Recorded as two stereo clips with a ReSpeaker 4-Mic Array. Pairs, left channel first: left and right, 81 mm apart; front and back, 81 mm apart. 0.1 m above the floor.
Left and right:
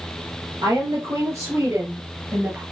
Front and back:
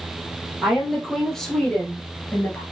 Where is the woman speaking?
90° right, 2.5 m; by 2.6 s 40° right, 1.7 m.